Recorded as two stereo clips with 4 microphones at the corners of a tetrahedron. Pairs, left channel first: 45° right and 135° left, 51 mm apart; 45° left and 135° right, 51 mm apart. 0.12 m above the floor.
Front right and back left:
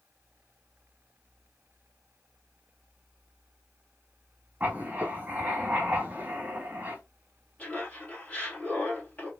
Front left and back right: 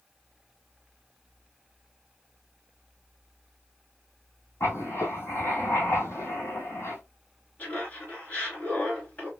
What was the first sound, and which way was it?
Writing, 75° left.